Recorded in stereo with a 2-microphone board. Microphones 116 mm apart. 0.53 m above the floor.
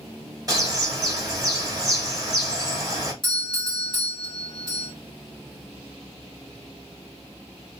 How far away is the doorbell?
About 2 m.